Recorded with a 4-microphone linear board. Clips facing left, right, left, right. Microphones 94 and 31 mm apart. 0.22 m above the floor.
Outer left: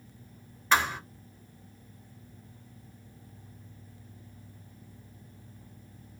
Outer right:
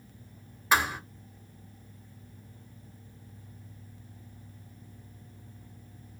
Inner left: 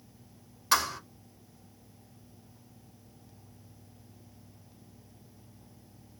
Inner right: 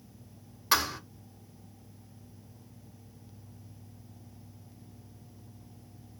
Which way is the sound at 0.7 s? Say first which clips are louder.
Even, even; 10° right (ahead or behind).